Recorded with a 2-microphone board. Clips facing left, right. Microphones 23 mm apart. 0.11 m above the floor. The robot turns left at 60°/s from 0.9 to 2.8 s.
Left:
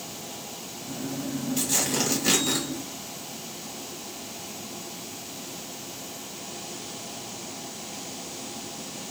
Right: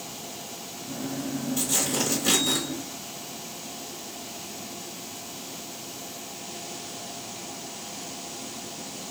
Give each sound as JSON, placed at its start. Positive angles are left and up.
{"t": 1.6, "sound": "tearing paper", "azimuth_deg": 70, "distance_m": 2.0}